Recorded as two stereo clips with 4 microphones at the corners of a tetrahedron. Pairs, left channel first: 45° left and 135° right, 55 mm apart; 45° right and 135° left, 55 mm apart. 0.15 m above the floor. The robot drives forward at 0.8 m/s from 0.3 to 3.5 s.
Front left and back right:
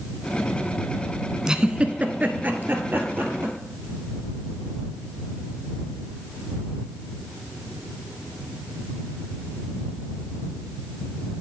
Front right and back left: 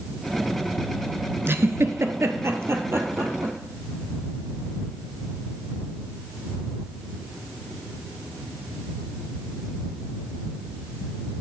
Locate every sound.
1.5 s a giggle: 150° left, 0.7 m; by 3.5 s 175° left, 2 m